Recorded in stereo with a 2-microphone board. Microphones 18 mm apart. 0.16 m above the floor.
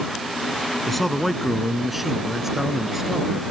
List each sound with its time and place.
0.9 s a man speaking: 5° left (ahead or behind); by 3.4 s 25° right (ahead or behind)